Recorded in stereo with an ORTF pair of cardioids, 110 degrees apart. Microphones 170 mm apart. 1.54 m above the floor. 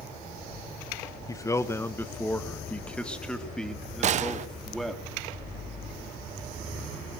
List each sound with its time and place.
1.3 s a man speaking: 20° left, 1.3 m; by 5.0 s straight ahead, 3.5 m
4.0 s a gunshot: 45° right, 1.1 m